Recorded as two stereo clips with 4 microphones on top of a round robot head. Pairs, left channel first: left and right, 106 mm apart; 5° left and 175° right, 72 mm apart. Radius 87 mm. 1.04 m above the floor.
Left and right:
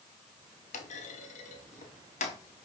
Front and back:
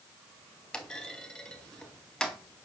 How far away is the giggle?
I don't hear a giggle.